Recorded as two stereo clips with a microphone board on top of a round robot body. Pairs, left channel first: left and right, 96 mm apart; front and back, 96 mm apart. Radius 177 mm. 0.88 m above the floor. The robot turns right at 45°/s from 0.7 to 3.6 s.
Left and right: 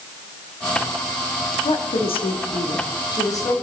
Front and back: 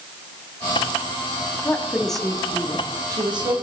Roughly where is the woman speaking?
Ahead left.